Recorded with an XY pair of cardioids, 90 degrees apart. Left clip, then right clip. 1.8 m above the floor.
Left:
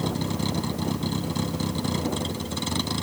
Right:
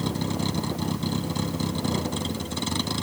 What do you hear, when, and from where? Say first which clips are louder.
0.0 s a vehicle: even; 5° right